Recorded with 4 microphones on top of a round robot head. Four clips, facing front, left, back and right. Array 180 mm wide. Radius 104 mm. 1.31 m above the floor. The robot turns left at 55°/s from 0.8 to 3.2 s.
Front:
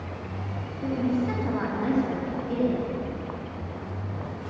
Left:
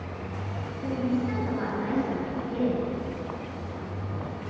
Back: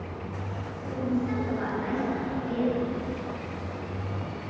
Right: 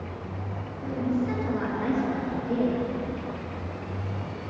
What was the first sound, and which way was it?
A woman speaking, 25° left.